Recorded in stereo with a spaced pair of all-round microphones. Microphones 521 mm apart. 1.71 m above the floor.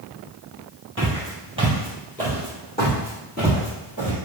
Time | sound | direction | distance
1.0 | footsteps | 20° right (ahead or behind) | 1.9 m